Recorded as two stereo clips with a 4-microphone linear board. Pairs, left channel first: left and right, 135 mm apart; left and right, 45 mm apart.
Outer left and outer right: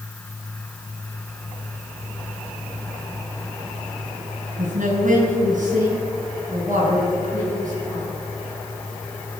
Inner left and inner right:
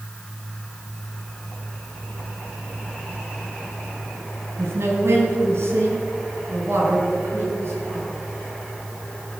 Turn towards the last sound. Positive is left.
turn(degrees=-65)  # may be behind; listen again after turning